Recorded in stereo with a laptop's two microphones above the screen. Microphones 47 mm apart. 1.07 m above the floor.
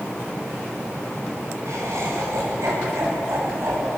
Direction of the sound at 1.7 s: 85° right.